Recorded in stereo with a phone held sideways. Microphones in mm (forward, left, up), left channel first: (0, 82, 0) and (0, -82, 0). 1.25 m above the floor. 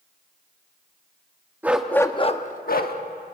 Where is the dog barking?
10° right (ahead or behind), 1.0 m; by 3.0 s 65° left (ahead or behind), 1.3 m.